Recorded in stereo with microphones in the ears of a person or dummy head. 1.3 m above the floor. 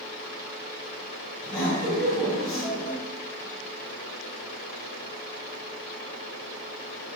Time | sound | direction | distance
1.4 | laughter | centre (ahead or behind) | 1.5 m